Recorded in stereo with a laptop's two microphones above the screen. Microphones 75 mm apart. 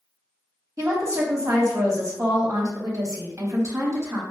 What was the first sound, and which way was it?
A woman speaking, 45° right (ahead or behind).